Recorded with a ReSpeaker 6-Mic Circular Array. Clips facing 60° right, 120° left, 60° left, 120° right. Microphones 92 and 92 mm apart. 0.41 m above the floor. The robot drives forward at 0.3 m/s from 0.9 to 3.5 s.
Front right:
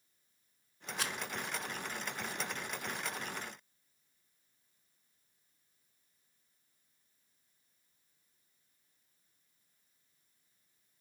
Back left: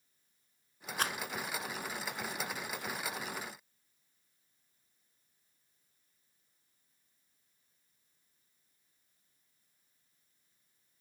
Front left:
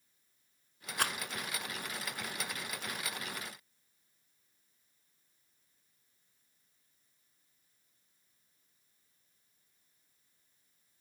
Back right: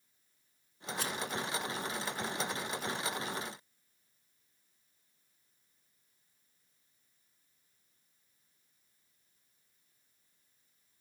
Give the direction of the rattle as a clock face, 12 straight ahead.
9 o'clock.